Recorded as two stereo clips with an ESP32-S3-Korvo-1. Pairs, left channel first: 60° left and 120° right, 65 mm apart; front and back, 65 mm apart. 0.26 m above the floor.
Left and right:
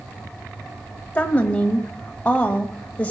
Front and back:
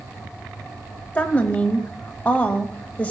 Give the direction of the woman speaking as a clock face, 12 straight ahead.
11 o'clock.